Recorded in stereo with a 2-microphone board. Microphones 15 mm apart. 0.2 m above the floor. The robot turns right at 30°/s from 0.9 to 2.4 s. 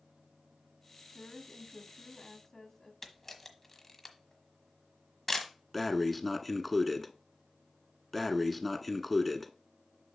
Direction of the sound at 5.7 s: Centre (ahead or behind).